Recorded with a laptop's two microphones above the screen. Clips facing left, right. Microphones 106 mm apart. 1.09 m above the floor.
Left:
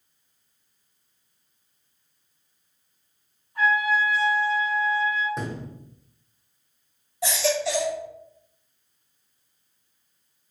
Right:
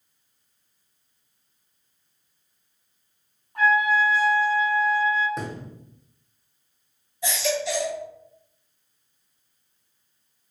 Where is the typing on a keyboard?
I don't hear typing on a keyboard.